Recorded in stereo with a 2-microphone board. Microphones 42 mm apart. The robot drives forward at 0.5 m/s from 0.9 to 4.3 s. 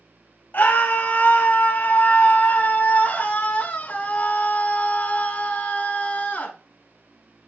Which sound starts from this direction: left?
A scream, at 0.5 s.